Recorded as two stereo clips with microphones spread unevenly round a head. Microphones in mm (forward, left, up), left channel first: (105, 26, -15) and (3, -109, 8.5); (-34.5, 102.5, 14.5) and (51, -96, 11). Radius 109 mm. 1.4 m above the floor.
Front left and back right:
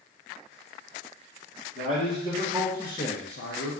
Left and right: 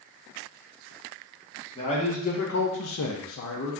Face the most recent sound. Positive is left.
turn(degrees=70)